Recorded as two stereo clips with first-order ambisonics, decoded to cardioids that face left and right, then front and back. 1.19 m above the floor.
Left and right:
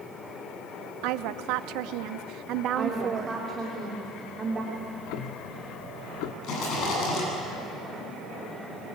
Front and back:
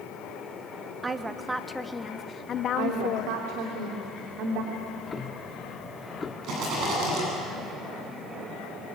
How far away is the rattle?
About 9.5 m.